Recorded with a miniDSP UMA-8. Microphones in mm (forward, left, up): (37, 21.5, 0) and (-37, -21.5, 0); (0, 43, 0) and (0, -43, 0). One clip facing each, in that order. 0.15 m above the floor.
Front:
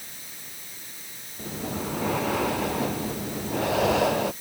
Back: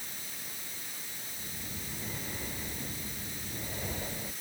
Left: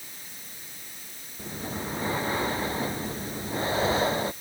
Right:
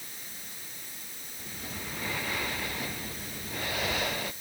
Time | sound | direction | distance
1.4 | breathing | 30° left | ?